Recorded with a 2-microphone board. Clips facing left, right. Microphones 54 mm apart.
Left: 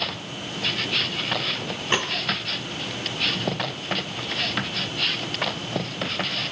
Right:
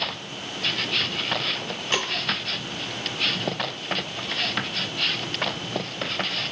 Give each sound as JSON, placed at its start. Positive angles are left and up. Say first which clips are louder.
{"t": 1.9, "sound": "a snare drum", "louder": "left 2 dB", "side_deg": 25, "distance_m": 1.7}